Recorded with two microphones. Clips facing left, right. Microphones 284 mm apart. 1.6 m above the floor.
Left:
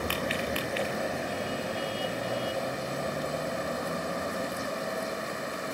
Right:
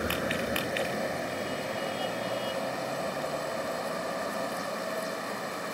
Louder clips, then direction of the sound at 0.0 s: Right 1 dB; 10° right (ahead or behind).